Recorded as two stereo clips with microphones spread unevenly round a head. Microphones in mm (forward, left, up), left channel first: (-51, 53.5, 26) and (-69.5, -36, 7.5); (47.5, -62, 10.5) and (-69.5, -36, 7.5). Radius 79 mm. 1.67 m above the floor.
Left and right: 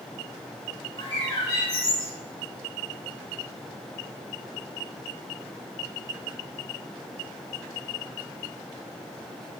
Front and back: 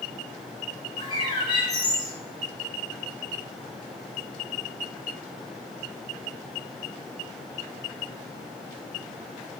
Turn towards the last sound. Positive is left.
turn(degrees=40)